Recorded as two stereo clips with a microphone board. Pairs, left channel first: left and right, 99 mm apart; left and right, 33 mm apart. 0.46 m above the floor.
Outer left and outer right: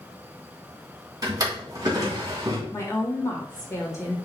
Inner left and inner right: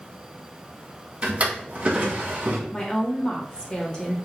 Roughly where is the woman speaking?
Left.